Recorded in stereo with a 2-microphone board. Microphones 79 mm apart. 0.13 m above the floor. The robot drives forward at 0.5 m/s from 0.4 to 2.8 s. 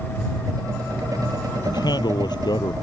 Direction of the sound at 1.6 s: 65° left (ahead or behind).